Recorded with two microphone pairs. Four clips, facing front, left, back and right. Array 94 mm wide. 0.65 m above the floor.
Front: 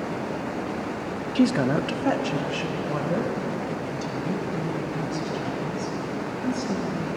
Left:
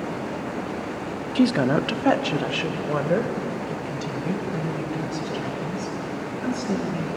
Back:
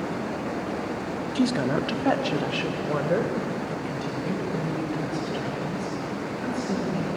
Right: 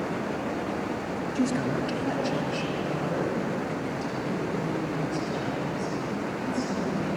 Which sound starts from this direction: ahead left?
A woman speaking, at 1.4 s.